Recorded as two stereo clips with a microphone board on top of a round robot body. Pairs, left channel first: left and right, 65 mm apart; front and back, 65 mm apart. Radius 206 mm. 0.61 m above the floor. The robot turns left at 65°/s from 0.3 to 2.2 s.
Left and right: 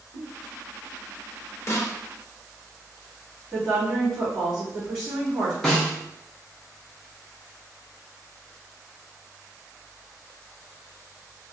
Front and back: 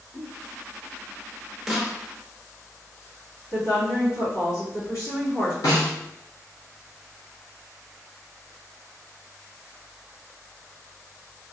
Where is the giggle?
80° left, 1.2 m.